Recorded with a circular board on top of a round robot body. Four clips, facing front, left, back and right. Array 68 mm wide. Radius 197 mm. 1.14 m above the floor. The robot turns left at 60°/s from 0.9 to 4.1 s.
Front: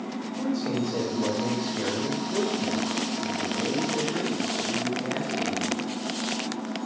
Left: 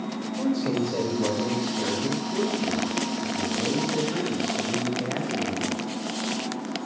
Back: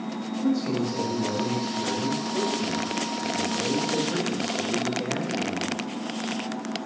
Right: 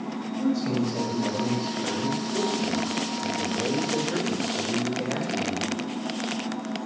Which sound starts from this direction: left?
A man speaking, at 0.4 s.